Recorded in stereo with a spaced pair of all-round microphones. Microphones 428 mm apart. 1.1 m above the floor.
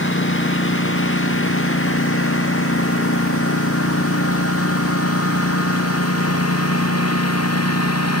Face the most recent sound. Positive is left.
turn(degrees=35)  # may be behind; listen again after turning